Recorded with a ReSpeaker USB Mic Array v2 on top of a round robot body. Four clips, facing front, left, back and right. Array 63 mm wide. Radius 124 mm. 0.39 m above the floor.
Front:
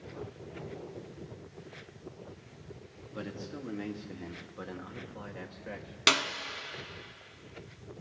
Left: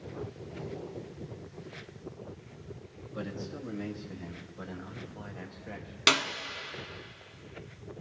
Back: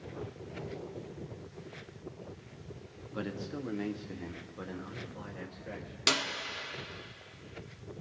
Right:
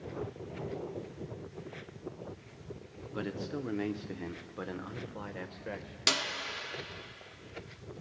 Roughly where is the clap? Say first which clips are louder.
Left 6 dB, front 4 dB; ahead left.